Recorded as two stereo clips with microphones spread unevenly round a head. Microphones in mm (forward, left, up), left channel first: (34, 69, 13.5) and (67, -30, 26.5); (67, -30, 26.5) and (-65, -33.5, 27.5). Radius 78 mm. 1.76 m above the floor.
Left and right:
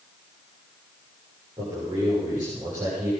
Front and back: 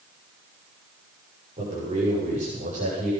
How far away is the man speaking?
About 8 m.